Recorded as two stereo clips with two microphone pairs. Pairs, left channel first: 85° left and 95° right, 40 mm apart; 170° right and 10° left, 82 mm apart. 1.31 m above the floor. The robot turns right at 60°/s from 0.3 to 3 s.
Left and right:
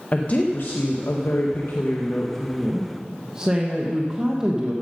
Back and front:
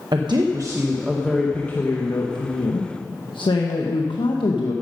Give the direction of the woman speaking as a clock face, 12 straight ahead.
11 o'clock.